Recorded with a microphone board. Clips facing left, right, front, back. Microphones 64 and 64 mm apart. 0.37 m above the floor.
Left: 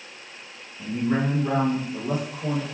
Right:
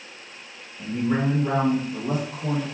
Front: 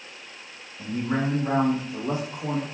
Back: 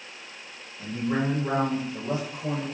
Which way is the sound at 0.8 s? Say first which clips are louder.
Even, front 1 dB; 15° left.